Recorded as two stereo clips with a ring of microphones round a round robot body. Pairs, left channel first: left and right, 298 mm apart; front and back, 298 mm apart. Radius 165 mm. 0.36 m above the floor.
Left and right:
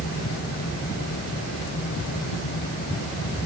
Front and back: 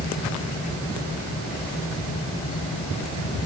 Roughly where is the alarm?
No alarm in this recording.